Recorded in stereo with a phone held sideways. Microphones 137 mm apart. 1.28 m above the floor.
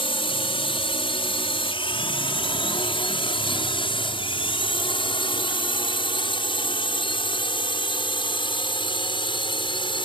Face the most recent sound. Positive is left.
turn(degrees=35)  # may be behind; listen again after turning